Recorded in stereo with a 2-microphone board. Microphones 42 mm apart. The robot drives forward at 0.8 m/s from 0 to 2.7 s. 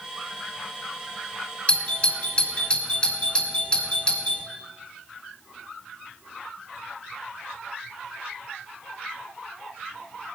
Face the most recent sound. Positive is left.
turn(degrees=25)  # may be behind; listen again after turning